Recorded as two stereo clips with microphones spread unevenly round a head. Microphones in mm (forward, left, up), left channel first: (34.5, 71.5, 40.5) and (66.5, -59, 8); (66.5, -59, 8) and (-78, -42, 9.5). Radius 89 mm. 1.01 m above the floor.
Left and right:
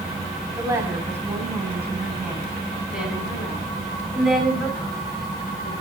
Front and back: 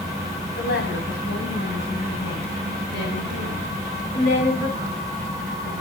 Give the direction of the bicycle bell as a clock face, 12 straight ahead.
No bicycle bell in this recording.